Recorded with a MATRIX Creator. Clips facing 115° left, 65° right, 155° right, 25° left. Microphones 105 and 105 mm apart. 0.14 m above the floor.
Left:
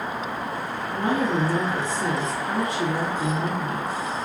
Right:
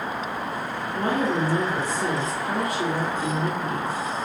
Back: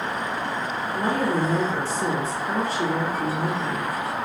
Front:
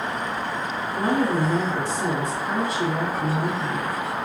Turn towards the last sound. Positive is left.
turn(degrees=80)